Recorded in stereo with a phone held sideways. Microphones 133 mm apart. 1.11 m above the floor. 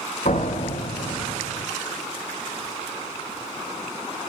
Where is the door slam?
75° left (ahead or behind), 2 m.